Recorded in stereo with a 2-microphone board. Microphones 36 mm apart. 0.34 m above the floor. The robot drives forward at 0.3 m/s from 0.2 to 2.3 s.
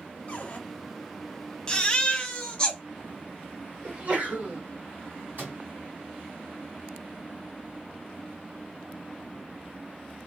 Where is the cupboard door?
35° left (ahead or behind), 1.0 m.